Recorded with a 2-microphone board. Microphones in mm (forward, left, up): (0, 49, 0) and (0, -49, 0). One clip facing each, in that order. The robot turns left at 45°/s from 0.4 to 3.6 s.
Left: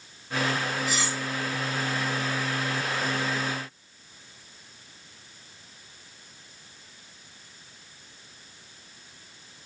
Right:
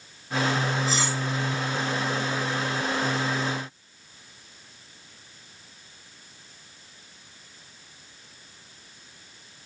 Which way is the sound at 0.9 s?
35° right (ahead or behind).